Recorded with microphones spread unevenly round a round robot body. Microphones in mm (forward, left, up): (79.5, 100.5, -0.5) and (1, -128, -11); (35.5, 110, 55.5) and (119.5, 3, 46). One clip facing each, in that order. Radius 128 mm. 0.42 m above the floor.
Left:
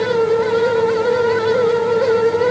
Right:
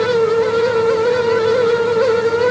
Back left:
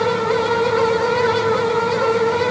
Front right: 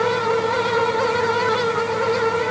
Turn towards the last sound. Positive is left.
No sound to turn to.